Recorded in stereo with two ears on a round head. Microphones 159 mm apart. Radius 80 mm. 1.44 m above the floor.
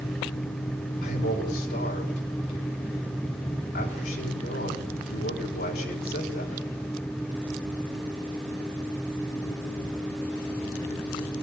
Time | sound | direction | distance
1.0 | a man speaking | 60° left (ahead or behind) | 5.5 m